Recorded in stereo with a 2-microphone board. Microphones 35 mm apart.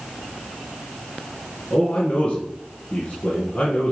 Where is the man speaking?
45° left (ahead or behind), 2.5 m.